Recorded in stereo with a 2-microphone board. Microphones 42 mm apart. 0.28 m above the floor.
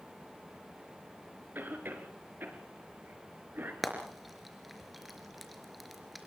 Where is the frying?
Centre (ahead or behind), 3.5 m.